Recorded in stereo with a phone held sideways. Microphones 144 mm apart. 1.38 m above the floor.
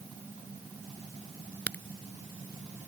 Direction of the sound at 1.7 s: 10° left (ahead or behind).